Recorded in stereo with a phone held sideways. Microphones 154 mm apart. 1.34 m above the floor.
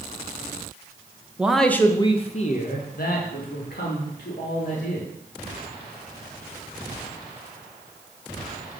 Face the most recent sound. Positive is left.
turn(degrees=85)